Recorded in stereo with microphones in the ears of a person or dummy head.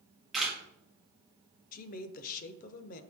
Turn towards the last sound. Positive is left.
turn(degrees=45)  # may be behind; listen again after turning